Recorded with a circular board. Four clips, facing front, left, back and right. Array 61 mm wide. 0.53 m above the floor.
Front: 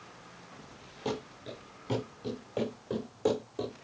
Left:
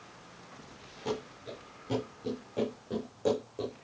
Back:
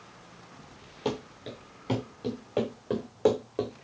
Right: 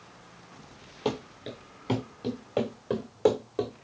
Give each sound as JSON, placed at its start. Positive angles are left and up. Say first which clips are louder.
{"t": 1.1, "sound": "running footsteps", "louder": "right 4 dB, back 3 dB", "azimuth_deg": -115, "distance_m": 4.5}